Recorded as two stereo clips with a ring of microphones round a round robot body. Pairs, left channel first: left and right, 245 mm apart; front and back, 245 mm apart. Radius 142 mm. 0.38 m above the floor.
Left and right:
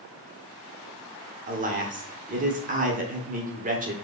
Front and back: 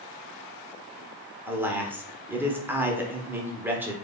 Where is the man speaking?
105° right, 0.9 m.